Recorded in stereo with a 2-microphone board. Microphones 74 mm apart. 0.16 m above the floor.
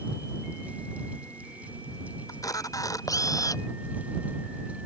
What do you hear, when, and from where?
2.3 s a camera shutter: 50° left (ahead or behind)